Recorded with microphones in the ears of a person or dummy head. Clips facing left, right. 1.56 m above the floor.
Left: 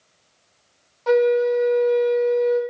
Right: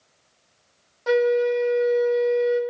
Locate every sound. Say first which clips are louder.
1.1 s a flute: left 2 dB; 10° right (ahead or behind), 1.1 m